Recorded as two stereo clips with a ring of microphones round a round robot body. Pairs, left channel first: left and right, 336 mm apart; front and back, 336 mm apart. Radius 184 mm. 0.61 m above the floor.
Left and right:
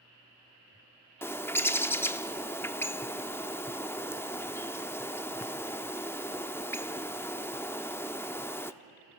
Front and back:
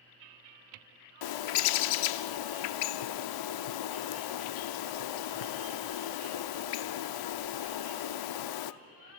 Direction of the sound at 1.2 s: 5° left.